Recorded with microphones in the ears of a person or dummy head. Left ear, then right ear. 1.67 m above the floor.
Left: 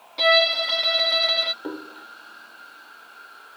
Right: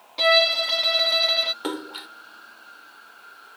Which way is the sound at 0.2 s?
5° right (ahead or behind).